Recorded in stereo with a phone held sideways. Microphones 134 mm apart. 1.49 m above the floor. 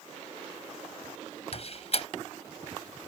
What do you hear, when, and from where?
1.5 s a door slam: 50° left (ahead or behind)